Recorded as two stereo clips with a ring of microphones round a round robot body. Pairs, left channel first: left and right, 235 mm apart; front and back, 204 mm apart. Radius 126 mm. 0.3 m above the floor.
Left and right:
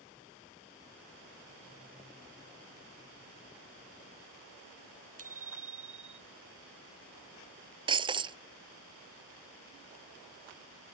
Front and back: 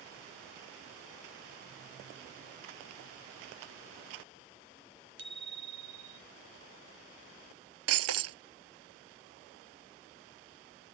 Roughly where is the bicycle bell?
Behind right.